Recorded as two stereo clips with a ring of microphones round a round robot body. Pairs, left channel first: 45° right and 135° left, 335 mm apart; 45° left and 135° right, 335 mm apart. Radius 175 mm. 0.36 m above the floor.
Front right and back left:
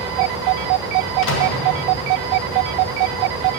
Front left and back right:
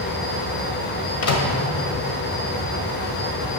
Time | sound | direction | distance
1.2 | a microwave | 5° left | 1.6 m